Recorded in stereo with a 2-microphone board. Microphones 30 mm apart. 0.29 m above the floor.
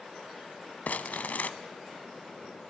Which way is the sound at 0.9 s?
70° left (ahead or behind).